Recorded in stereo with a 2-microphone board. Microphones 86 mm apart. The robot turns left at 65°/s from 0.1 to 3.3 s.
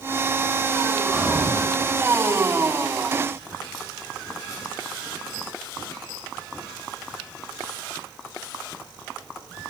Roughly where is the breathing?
Ahead.